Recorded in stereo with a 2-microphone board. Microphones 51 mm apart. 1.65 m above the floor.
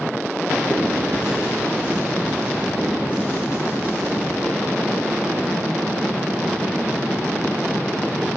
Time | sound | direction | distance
0.7 | writing | 35° left (ahead or behind) | 0.9 m